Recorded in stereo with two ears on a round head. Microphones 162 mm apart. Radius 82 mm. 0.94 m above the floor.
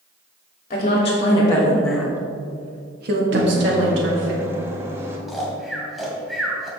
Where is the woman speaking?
40° left (ahead or behind), 2.5 m; by 4.3 s 75° right (ahead or behind), 3 m.